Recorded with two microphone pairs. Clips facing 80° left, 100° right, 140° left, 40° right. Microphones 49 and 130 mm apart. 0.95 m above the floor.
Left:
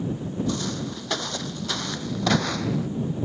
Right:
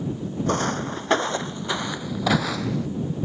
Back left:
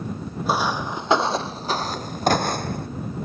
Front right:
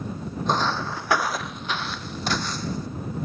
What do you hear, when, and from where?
0.5 s footsteps: 135° right; by 2.9 s 165° left